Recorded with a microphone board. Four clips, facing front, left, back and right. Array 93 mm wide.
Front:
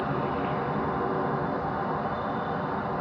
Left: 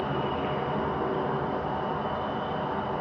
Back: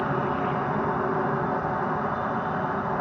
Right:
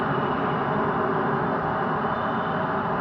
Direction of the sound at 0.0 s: 110° right.